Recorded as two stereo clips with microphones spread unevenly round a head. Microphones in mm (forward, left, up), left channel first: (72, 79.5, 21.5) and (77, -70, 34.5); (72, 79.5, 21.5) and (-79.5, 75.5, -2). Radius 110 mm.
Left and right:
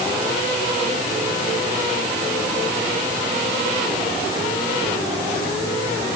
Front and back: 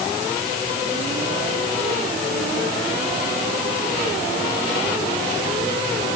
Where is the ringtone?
No ringtone in this recording.